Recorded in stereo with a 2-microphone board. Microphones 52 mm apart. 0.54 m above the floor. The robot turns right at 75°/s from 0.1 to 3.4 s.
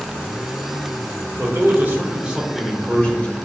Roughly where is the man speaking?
Right.